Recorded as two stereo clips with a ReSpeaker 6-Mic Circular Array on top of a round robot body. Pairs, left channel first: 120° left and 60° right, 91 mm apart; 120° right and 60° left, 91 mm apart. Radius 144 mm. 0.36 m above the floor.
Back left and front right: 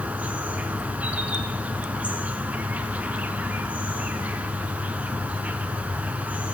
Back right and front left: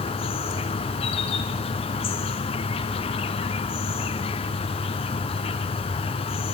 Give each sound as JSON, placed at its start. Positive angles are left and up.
{"t": 0.0, "sound": "an insect", "azimuth_deg": -135, "distance_m": 0.8}